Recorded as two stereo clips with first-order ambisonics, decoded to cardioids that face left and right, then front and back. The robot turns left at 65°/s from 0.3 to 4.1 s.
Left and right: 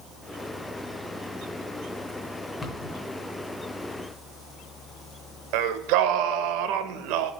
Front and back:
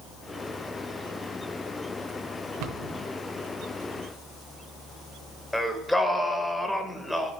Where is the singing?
90° right, 0.6 m.